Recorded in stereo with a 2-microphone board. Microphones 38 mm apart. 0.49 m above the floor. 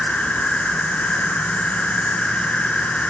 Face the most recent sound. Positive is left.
turn(degrees=35)  # may be behind; listen again after turning